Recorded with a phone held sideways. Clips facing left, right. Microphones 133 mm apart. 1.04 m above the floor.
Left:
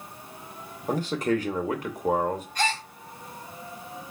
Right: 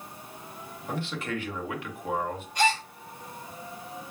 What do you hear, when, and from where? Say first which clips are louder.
0.9 s a man speaking: left 8 dB; 40° left (ahead or behind), 0.7 m
2.5 s a gasp: right 7 dB; 20° right (ahead or behind), 2 m